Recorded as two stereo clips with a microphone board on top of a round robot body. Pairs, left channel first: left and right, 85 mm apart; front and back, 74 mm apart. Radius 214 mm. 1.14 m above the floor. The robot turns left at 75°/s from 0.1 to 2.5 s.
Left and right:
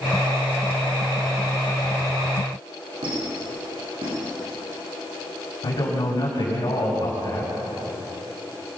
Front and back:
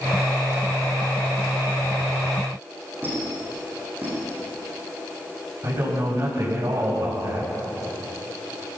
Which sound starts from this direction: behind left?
A man speaking, at 5.6 s.